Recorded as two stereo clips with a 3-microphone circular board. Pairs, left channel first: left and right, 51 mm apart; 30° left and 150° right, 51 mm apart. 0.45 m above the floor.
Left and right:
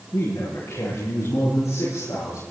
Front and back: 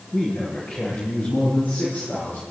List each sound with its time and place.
0.1 s a man speaking: 90° left, 8.5 m; by 2.4 s 80° left, 10.5 m